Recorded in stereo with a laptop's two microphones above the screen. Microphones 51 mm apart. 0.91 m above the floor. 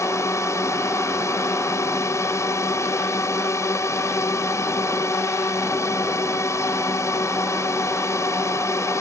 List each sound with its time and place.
0.0 s a drone: 75° left (ahead or behind)